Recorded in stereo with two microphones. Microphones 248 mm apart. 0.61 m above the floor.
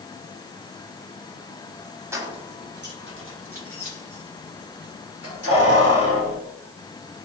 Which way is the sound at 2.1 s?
10° right (ahead or behind).